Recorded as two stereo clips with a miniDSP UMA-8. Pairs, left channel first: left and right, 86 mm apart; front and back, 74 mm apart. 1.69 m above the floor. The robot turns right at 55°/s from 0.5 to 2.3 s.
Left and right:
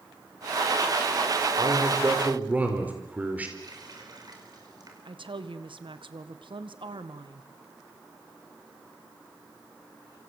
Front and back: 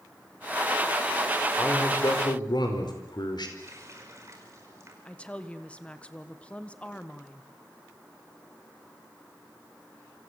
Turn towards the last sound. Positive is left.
turn(degrees=-75)